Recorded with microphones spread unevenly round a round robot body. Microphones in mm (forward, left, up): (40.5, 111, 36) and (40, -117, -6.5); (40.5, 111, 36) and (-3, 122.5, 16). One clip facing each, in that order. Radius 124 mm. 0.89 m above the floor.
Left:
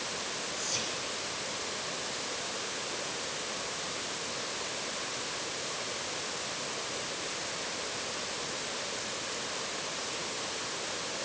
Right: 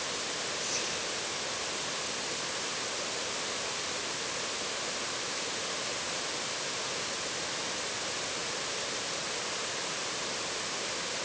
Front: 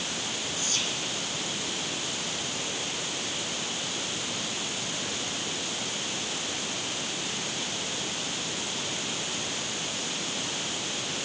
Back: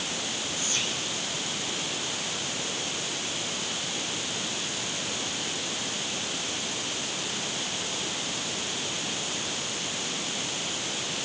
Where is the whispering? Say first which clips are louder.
Right 1 dB, back 1 dB; 100° left, 10 m.